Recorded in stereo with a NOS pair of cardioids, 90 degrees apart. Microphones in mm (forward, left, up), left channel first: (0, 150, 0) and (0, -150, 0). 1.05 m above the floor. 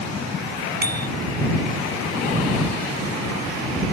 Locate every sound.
0.8 s a bicycle bell: 30° right